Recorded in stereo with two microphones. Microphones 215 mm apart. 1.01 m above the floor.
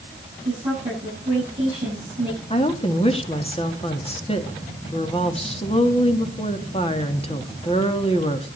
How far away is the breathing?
No breathing in this recording.